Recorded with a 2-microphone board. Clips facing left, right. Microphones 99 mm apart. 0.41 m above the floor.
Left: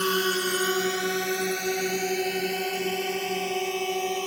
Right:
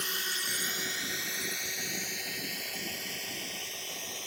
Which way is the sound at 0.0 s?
60° left (ahead or behind).